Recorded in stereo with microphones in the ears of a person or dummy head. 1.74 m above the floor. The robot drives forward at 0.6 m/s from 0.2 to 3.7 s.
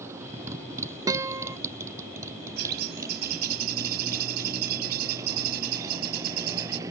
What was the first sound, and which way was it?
A motorcycle, 15° right (ahead or behind).